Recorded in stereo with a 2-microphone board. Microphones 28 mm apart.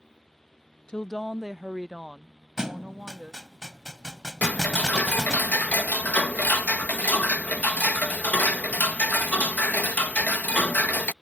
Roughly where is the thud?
Right.